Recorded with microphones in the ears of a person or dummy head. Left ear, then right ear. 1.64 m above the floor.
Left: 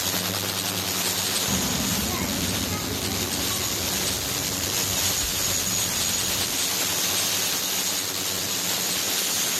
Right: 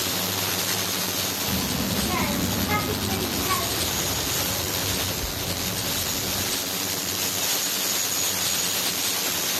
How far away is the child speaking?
About 1.1 m.